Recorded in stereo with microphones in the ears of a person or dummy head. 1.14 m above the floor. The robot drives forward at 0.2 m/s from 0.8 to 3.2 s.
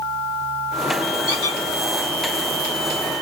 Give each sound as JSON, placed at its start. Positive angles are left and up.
{"t": 1.3, "sound": "a squeak", "side_deg": 70, "distance_m": 1.3}